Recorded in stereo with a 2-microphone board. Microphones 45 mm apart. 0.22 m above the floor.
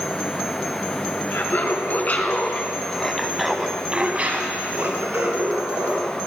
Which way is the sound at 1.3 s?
50° left (ahead or behind).